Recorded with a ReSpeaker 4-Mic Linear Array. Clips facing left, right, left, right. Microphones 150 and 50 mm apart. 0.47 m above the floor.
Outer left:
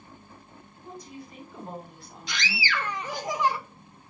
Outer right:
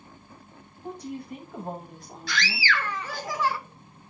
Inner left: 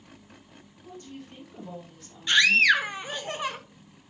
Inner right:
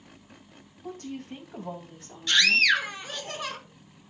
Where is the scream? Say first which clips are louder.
Outer right 3 dB, inner left 2 dB; 20° left (ahead or behind), 1.2 m.